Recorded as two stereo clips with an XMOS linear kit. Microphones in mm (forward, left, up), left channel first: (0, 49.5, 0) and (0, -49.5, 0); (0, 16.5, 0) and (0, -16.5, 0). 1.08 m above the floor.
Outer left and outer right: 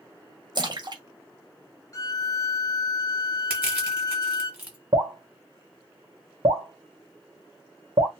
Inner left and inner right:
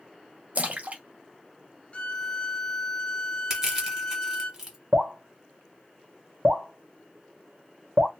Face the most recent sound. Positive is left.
turn(degrees=-65)  # may be behind; listen again after turning